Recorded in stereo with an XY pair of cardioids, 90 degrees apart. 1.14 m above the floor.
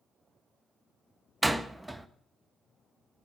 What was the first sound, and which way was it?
A door slam, 5° right.